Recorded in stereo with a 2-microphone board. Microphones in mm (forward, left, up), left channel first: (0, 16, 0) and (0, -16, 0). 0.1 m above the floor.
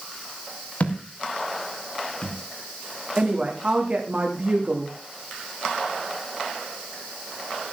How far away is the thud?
About 4.5 m.